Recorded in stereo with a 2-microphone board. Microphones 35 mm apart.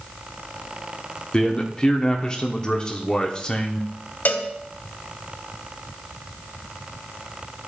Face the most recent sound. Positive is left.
turn(degrees=55)  # may be behind; listen again after turning